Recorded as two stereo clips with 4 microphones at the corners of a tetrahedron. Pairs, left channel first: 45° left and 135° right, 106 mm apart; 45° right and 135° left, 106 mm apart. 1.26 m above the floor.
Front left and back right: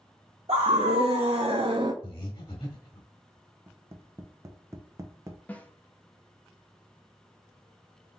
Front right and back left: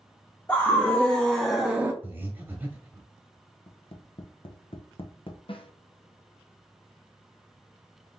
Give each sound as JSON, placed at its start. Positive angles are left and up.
{"t": 0.5, "sound": "a scream", "azimuth_deg": -110, "distance_m": 1.2}
{"t": 2.0, "sound": "breathing", "azimuth_deg": 70, "distance_m": 1.3}
{"t": 3.7, "sound": "tapping", "azimuth_deg": -75, "distance_m": 0.7}
{"t": 5.5, "sound": "a snare drum", "azimuth_deg": -25, "distance_m": 0.6}